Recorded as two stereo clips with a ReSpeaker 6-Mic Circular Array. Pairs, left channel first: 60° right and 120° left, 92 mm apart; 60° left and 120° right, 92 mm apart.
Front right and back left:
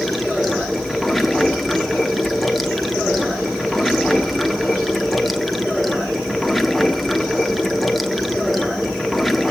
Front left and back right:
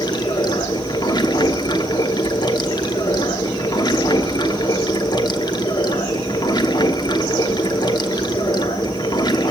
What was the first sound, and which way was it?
Running water, 30° left.